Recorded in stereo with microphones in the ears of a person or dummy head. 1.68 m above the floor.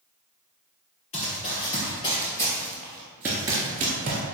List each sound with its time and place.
1.1 s running footsteps: 35° left (ahead or behind), 2.5 m; by 4.2 s 30° right (ahead or behind), 1.8 m